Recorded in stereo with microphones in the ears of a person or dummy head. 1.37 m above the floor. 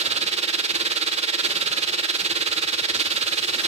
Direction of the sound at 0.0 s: 30° right (ahead or behind).